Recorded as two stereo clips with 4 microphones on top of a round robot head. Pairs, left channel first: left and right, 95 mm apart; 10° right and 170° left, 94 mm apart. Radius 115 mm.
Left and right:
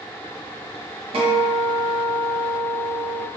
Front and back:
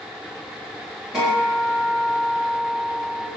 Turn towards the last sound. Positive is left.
turn(degrees=-105)